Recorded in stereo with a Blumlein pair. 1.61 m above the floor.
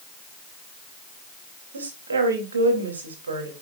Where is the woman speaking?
70° right, 3 m.